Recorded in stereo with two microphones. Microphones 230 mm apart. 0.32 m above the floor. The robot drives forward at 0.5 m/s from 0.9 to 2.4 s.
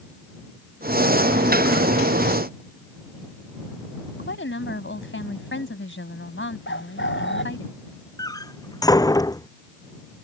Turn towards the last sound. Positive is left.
turn(degrees=15)  # may be behind; listen again after turning